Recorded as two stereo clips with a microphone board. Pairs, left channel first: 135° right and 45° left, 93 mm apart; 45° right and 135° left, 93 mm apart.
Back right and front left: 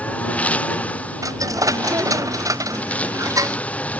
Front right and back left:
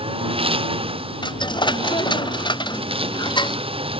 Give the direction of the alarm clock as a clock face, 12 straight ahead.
No alarm clock in this recording.